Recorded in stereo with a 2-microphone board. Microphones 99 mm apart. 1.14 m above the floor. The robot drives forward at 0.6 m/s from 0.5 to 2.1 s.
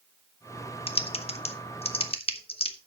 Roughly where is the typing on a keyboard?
Left.